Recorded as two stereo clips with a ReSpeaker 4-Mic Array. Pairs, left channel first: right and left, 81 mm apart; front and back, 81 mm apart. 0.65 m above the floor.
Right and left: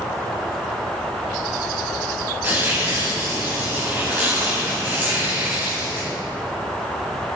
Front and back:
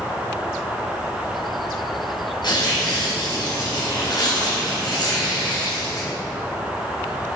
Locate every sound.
2.4 s tearing paper: 25° left, 5 m